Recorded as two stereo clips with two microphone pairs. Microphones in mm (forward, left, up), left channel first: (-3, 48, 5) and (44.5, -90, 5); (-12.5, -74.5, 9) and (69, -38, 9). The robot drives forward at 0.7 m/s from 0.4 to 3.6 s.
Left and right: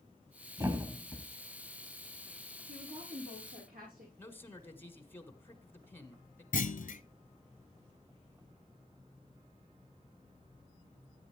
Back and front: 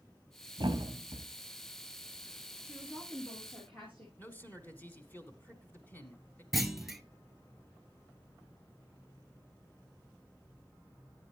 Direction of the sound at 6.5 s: 110° left.